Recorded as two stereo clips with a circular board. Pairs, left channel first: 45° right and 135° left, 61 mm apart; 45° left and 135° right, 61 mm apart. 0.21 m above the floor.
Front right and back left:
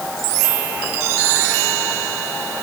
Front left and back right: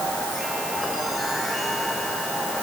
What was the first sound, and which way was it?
Only background noise.